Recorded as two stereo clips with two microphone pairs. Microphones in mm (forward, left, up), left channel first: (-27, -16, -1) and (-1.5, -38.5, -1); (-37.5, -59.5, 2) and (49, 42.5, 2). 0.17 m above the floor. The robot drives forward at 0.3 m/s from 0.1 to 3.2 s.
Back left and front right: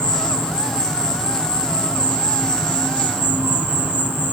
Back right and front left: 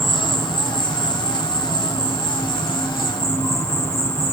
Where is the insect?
45° right, 2.5 m; by 4.3 s 65° right, 2 m.